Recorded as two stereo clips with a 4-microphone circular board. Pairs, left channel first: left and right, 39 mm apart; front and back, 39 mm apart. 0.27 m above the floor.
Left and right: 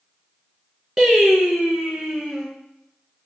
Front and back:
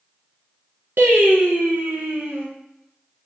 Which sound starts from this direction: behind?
Singing, at 1.0 s.